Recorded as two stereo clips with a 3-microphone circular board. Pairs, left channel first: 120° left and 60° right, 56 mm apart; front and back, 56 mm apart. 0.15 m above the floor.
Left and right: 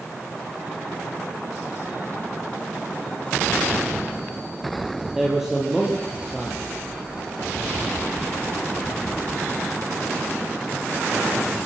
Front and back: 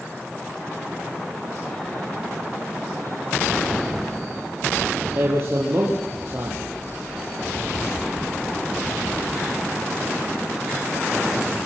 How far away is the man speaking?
About 4 m.